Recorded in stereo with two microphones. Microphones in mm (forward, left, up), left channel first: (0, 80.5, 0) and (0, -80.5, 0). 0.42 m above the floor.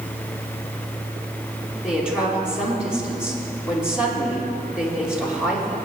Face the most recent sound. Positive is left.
turn(degrees=-5)  # may be behind; listen again after turning